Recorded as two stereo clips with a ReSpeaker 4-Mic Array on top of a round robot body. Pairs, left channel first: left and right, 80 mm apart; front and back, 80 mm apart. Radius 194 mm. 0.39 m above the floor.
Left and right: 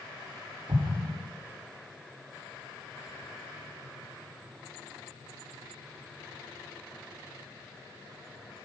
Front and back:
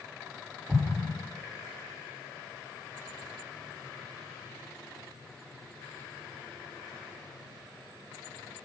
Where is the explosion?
105° right, 2.5 m.